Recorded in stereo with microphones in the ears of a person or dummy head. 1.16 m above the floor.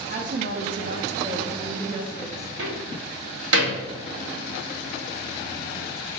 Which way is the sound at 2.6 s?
80° right.